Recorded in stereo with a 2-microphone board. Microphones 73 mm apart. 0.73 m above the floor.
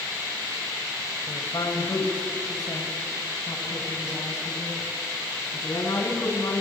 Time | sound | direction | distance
1.3 | a woman speaking | 60° left (ahead or behind) | 4 m